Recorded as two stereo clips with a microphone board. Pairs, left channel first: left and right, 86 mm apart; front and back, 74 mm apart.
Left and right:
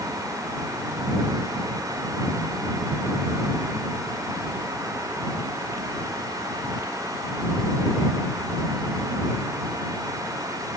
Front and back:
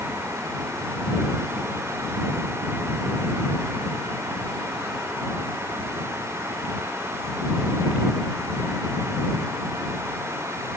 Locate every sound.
Only background noise.